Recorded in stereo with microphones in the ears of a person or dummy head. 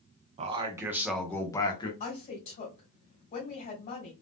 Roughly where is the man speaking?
Right.